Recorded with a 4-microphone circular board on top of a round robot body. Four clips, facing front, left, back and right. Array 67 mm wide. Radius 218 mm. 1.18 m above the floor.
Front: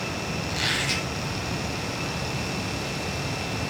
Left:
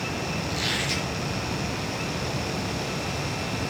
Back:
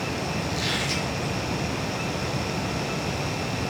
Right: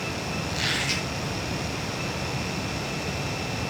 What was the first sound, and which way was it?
A squeak, 35° right.